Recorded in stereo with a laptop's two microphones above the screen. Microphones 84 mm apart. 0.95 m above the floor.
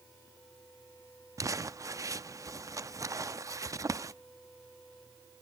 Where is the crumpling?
35° right (ahead or behind), 0.5 m.